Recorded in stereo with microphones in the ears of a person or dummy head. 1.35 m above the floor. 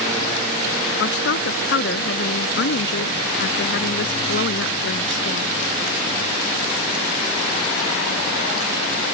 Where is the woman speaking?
65° left (ahead or behind); by 5.5 s 60° left (ahead or behind).